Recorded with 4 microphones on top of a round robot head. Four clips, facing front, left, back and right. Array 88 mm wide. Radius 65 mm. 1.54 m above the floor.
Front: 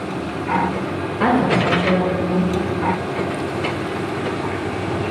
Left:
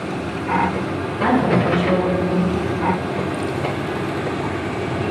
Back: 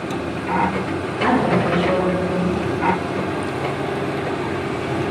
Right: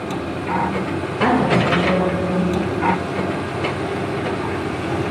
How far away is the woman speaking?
About 2 m.